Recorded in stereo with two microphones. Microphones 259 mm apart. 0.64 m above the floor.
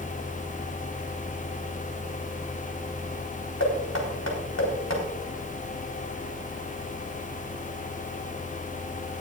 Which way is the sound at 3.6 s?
80° left.